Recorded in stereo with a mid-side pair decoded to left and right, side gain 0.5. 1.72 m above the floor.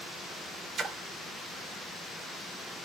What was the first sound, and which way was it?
A splash, 45° right.